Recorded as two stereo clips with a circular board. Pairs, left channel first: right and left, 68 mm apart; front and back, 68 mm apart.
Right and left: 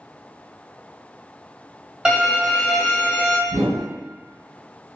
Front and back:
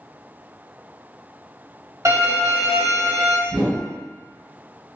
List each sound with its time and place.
2.0 s a violin: 160° left, 2.0 m
3.5 s a whoosh: 80° left, 1.7 m